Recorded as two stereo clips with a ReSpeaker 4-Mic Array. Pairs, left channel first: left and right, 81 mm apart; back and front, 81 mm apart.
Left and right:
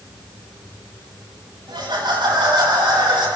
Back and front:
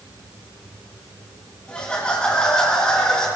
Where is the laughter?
100° right, 6.5 m.